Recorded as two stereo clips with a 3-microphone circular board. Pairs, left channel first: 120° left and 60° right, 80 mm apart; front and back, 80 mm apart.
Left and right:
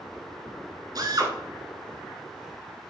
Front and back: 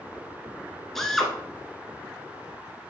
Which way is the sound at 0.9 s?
85° right.